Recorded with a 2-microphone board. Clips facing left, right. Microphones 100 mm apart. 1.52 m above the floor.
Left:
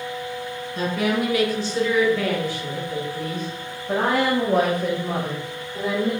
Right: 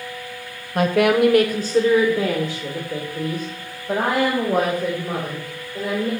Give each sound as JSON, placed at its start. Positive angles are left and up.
{"t": 0.8, "sound": "a woman speaking", "side_deg": -55, "distance_m": 0.7}